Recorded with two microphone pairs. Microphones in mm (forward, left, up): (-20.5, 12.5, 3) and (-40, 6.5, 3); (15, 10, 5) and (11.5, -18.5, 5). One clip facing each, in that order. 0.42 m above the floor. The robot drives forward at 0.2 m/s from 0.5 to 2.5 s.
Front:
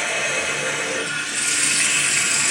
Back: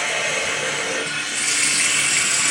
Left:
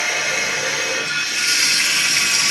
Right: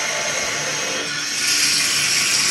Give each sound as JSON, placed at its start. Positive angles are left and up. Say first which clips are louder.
{"t": 0.0, "sound": "running water", "louder": "even, left 3 dB", "azimuth_deg": 140, "distance_m": 3.0}